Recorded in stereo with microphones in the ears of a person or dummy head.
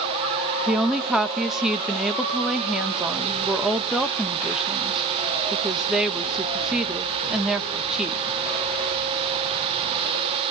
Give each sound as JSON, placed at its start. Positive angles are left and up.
{"t": 0.7, "sound": "a woman speaking", "side_deg": 0, "distance_m": 1.4}